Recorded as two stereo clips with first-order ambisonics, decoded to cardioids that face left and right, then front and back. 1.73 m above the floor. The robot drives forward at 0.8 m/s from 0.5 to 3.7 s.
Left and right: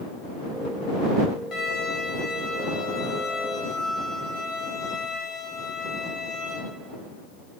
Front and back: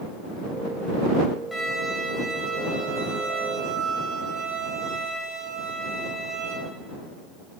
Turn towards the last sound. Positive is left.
turn(degrees=170)